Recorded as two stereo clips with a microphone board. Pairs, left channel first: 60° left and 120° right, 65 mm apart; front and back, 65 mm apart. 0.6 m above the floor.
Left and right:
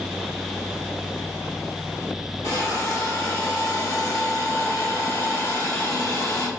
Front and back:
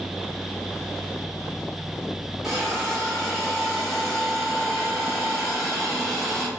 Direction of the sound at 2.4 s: 90° left.